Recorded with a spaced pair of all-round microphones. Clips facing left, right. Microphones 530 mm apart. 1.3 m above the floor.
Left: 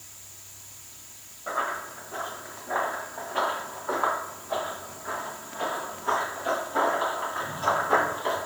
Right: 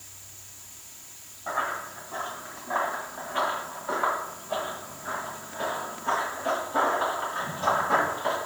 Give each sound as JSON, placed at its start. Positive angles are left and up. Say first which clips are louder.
{"t": 1.5, "sound": "running footsteps", "louder": "left 1 dB", "side_deg": -15, "distance_m": 4.5}